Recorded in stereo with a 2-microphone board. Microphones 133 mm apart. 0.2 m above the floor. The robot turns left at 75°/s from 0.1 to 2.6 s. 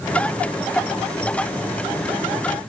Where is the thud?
I don't hear a thud.